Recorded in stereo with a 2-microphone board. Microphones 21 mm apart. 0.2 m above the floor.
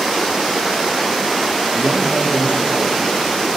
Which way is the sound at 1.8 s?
70° right (ahead or behind).